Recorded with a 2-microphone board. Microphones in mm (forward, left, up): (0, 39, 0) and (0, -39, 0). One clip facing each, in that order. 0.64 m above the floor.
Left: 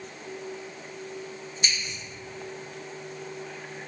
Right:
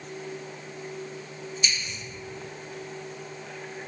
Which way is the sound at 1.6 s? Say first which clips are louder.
Left 1 dB; 50° left (ahead or behind).